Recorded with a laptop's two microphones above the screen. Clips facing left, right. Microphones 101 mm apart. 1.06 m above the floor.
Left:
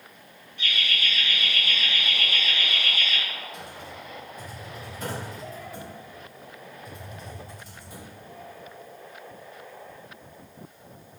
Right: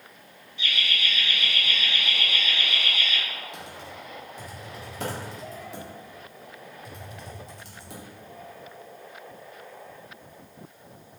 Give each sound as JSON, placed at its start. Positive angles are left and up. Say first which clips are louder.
{"t": 0.6, "sound": "laughter", "louder": "even", "side_deg": 50, "distance_m": 1.0}
{"t": 3.5, "sound": "typing on a keyboard", "louder": "even", "side_deg": -85, "distance_m": 1.0}